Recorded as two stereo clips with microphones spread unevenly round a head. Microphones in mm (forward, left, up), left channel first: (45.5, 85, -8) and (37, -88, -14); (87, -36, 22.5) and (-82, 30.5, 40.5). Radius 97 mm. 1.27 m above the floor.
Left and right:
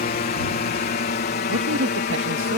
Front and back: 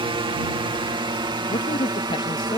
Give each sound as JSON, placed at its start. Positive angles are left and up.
{"t": 0.0, "sound": "a drone", "azimuth_deg": 100}
{"t": 1.5, "sound": "a man speaking", "azimuth_deg": -90}